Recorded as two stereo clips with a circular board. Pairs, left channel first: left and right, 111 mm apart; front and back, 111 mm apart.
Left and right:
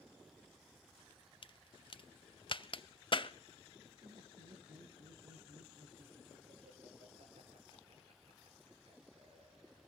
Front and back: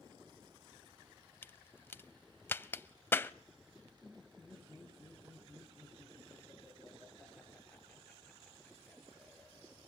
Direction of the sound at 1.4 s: 65° left.